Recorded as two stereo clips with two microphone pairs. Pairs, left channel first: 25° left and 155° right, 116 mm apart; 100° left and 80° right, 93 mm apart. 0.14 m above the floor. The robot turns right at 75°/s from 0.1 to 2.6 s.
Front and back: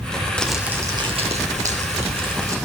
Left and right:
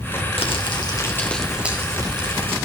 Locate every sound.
0.4 s crumpling: 105° left, 3 m; by 2.6 s 90° right, 3 m